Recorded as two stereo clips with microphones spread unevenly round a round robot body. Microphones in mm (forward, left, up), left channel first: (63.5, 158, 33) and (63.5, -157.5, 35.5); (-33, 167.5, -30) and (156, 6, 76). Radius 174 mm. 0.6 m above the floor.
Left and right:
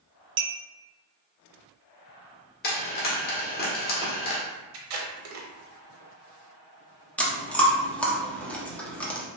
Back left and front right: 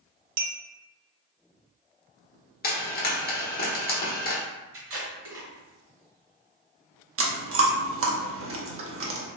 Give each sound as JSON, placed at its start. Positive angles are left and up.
{"t": 0.4, "sound": "a clink", "azimuth_deg": -35, "distance_m": 0.7}
{"t": 2.6, "sound": "frying", "azimuth_deg": 145, "distance_m": 1.2}
{"t": 4.7, "sound": "tape being pulled", "azimuth_deg": -90, "distance_m": 0.9}
{"t": 7.2, "sound": "chewing", "azimuth_deg": 5, "distance_m": 0.9}